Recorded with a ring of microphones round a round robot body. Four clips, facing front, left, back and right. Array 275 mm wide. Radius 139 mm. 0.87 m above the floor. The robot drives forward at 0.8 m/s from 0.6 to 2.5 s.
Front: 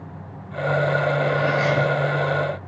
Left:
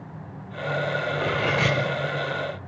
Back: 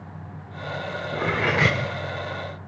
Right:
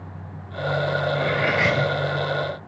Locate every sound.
1.1 s cutlery clinking: 165° left, 1.4 m; by 1.8 s 170° left, 1.9 m